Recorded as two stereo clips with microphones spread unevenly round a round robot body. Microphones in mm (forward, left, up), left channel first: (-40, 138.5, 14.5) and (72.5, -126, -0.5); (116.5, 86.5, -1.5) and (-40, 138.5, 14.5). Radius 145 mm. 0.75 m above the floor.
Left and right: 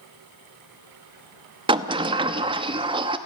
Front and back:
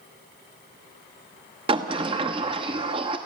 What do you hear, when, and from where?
1.7 s a sliding door: 135° right, 0.8 m